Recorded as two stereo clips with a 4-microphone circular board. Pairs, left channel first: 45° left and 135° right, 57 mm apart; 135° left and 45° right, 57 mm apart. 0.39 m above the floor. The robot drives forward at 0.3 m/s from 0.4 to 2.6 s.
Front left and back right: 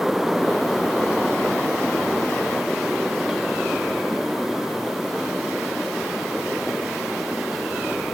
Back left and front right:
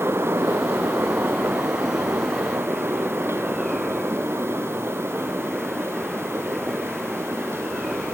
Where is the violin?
No violin in this recording.